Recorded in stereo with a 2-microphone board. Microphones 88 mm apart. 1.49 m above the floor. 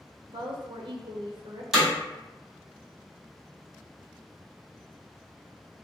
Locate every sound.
0.3 s a woman speaking: 65° right (ahead or behind), 1.1 m
1.7 s hammering: 5° right (ahead or behind), 1.9 m